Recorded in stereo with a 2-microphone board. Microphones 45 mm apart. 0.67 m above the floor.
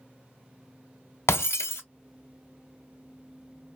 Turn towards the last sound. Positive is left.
turn(degrees=80)